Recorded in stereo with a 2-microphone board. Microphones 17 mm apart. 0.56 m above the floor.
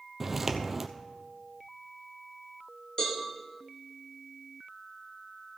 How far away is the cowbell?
About 4 m.